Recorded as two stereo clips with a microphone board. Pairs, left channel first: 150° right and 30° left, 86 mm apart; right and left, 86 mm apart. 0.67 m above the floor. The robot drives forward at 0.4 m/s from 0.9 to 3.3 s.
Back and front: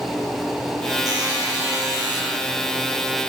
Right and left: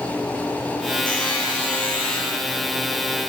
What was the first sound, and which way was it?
A buzzer, 15° right.